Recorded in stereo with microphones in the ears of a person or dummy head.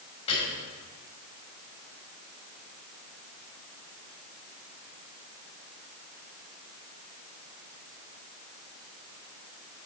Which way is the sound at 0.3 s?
35° left (ahead or behind).